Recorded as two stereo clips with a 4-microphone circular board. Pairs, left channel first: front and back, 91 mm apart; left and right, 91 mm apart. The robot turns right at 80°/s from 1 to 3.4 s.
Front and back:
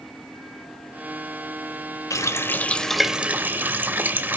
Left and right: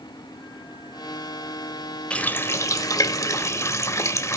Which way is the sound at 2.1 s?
20° left.